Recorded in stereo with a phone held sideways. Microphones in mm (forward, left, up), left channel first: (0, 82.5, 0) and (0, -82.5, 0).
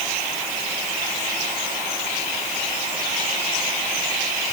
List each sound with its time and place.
Only background noise.